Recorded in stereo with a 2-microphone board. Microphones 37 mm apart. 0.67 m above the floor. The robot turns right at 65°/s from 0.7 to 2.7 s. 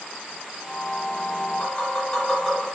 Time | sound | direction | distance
1.6 | tapping | 55° left (ahead or behind) | 1.4 m